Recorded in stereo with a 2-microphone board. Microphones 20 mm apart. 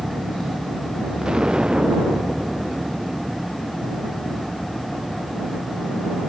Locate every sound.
1.2 s an explosion: 50° right (ahead or behind)